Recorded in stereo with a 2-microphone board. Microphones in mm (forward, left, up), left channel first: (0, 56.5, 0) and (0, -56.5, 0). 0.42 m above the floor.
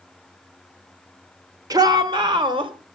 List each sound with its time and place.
1.7 s a shout: 35° right (ahead or behind), 1.3 m; by 2.7 s 50° right (ahead or behind), 1.9 m